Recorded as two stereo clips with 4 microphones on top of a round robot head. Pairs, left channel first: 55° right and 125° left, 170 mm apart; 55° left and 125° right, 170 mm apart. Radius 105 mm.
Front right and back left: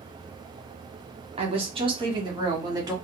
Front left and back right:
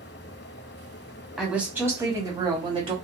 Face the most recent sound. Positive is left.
turn(degrees=-170)